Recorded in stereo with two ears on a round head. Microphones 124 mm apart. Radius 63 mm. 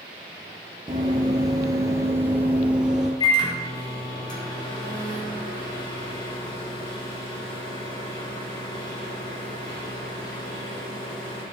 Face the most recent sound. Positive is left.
turn(degrees=35)  # may be behind; listen again after turning